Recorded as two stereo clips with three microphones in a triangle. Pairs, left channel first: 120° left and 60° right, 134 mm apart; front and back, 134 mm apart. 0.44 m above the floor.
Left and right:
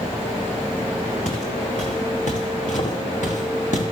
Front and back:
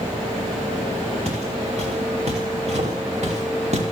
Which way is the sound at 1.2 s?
145° left.